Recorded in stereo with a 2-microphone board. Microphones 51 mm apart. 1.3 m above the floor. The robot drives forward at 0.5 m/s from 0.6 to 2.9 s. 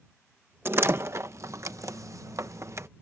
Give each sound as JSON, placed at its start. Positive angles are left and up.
{"t": 0.7, "sound": "a door slam", "side_deg": -50}